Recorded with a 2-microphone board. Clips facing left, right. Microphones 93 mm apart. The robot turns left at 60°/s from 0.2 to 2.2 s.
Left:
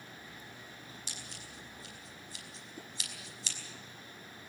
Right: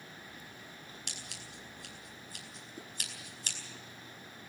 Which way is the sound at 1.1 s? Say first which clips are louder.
Even; 60° right (ahead or behind).